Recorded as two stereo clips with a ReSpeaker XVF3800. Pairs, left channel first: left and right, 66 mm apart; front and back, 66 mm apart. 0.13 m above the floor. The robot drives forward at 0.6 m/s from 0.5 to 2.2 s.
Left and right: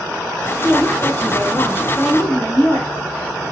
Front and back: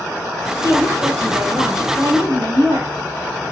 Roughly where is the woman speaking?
Behind.